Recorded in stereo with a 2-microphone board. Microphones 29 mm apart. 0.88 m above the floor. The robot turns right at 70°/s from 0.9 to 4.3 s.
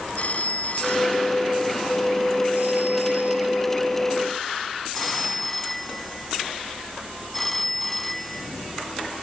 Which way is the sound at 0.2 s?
130° left.